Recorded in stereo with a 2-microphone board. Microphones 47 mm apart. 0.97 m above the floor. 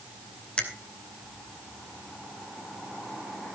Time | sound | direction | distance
0.6 | a finger snap | 20° left (ahead or behind) | 2.5 m